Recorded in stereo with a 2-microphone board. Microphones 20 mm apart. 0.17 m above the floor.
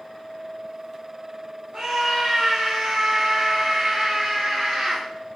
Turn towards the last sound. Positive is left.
turn(degrees=-65)  # may be behind; listen again after turning